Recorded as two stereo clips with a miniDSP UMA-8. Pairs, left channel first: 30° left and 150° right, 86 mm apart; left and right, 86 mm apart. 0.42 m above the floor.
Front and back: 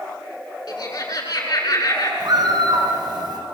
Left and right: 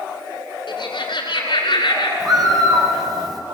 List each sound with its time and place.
0.7 s laughter: 65° left, 5.5 m
2.2 s a bird: 120° right, 3.5 m